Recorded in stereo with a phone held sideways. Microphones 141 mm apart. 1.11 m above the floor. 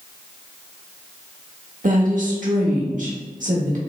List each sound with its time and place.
1.8 s a woman speaking: 60° right (ahead or behind), 1.5 m